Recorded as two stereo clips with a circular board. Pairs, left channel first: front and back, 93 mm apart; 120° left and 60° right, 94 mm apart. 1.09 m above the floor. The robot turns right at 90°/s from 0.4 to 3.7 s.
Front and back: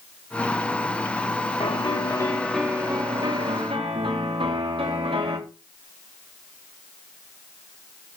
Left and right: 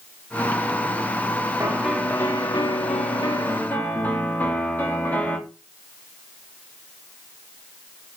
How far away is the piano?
About 2.5 m.